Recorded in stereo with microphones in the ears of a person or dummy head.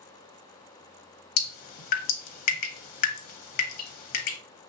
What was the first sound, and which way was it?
Dripping, 45° left (ahead or behind).